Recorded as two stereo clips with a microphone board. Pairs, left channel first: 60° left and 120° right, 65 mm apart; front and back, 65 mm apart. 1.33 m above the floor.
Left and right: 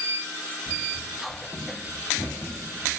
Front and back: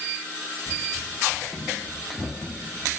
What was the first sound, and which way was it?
Running footsteps, 50° left.